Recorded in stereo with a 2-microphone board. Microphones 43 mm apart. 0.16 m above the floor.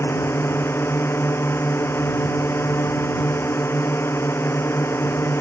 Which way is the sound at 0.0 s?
65° left (ahead or behind).